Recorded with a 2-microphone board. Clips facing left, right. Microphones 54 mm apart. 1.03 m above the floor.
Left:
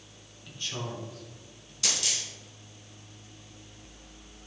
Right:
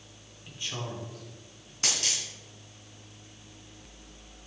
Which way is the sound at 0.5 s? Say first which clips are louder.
Even; 20° right (ahead or behind).